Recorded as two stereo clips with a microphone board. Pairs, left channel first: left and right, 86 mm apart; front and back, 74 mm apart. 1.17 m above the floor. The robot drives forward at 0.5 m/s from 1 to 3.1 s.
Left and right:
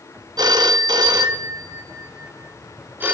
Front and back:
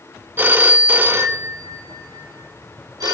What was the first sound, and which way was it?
A phone ringing, 120° right.